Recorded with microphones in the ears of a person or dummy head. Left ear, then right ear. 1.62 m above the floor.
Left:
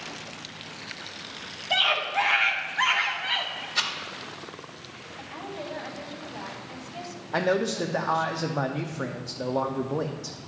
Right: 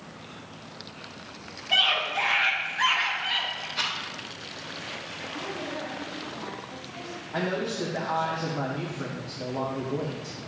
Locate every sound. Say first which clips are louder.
1.7 s a scream: right 1 dB; 30° left (ahead or behind), 1.5 m
3.8 s a rattle: left 2 dB; 80° left, 1.8 m
5.2 s a woman speaking: even; 90° left, 2.5 m
7.3 s a man speaking: left 5 dB; 70° left (ahead or behind), 0.6 m